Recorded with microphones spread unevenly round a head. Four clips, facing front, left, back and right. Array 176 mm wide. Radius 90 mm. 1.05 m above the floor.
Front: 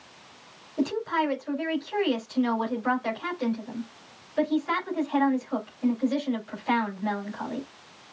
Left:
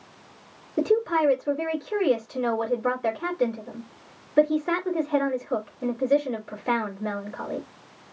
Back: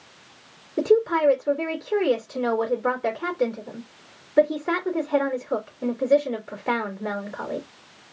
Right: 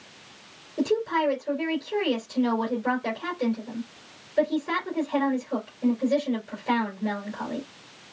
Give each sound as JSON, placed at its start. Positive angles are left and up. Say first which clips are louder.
{"t": 0.8, "sound": "a woman speaking", "louder": "left 3 dB, back 7 dB", "azimuth_deg": 140, "distance_m": 2.5}